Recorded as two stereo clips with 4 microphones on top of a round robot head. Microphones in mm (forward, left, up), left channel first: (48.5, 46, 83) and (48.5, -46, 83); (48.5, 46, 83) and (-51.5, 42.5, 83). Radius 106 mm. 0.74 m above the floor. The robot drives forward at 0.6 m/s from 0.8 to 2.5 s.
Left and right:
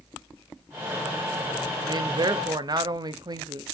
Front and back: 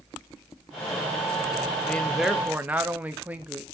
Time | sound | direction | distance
1.8 | a man speaking | 70° right | 0.9 m